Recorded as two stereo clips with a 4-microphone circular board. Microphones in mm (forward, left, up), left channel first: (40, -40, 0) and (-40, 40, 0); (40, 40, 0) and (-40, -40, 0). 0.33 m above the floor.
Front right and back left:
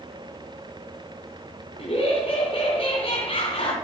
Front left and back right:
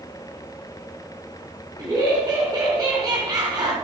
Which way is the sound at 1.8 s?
70° right.